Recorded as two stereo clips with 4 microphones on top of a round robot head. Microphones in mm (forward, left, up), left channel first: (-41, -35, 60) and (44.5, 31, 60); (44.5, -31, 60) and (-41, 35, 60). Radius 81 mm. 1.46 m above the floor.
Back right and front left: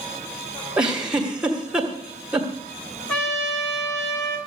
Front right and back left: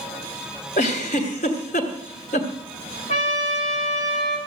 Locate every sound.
0.8 s a giggle: 45° right, 2.0 m
3.1 s a trumpet: 65° right, 4 m